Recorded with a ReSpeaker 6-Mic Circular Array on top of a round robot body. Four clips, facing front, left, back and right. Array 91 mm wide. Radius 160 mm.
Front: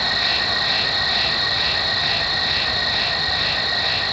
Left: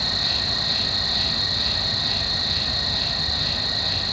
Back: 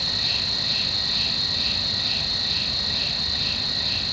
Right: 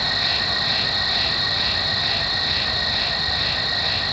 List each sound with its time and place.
0.0 s an insect: 25° right, 1.3 m